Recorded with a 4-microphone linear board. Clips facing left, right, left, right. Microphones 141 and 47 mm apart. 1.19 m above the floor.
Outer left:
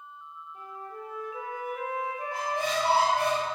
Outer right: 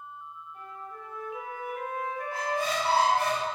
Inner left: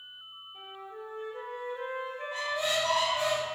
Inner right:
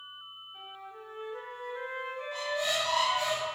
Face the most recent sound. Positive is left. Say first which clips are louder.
# even, inner left 1 dB
turn(degrees=20)  # may be behind; listen again after turning